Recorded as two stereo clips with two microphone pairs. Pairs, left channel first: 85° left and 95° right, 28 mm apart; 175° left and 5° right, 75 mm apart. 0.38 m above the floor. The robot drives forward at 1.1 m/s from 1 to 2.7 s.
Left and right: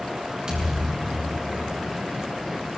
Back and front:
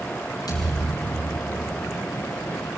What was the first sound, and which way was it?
A thud, 160° right.